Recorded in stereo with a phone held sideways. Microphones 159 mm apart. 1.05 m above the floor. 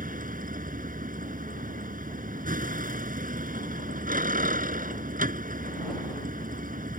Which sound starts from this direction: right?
A vehicle, at 0.0 s.